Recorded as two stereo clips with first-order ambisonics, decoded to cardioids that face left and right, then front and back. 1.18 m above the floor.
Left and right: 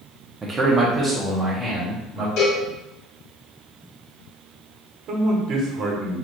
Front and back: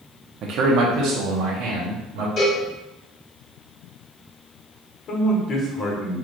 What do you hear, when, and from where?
0.4 s a man speaking: 155° right, 0.6 m; by 2.3 s 160° right, 1.9 m
2.4 s a cowbell: 55° left, 1.9 m
5.1 s a man speaking: 50° right, 1.1 m